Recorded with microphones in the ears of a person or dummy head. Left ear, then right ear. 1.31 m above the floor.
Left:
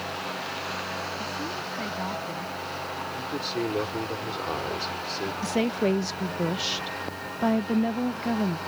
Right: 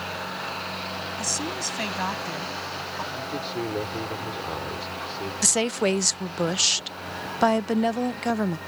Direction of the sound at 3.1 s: 25° left (ahead or behind).